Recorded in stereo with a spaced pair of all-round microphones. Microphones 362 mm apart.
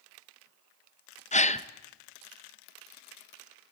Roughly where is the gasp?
Centre.